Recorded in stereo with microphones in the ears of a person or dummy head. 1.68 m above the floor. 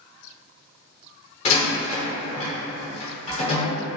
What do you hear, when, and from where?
1.4 s a door slam: 35° left (ahead or behind), 0.8 m